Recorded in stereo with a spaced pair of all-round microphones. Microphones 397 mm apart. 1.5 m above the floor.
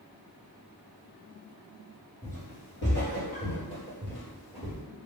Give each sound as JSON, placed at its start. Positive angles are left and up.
{"t": 2.2, "sound": "footsteps", "side_deg": 40, "distance_m": 1.8}